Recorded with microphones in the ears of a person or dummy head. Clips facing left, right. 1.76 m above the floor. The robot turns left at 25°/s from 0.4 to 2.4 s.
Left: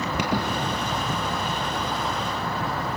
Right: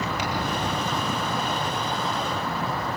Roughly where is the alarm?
Left.